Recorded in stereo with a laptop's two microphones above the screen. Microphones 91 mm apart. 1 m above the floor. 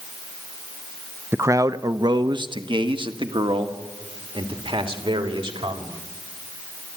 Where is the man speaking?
25° right (ahead or behind), 0.5 m; by 5.9 s 75° right (ahead or behind), 3 m.